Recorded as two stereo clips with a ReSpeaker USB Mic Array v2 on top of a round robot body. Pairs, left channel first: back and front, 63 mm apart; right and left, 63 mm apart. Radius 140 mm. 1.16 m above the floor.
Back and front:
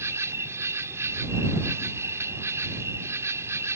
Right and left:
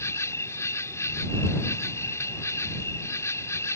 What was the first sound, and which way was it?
An insect, 45° right.